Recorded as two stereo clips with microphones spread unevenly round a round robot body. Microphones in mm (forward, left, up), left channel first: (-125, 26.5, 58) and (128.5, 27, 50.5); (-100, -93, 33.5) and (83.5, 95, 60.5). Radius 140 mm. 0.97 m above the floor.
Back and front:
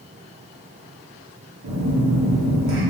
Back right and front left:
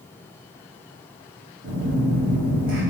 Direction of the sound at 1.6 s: 5° left.